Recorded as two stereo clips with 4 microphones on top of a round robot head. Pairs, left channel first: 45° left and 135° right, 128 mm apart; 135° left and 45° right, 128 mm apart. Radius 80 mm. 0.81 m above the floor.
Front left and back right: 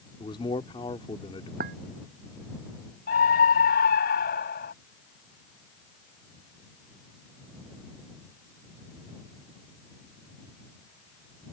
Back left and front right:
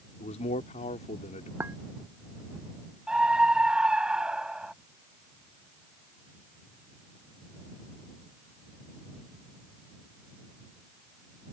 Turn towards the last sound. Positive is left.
turn(degrees=40)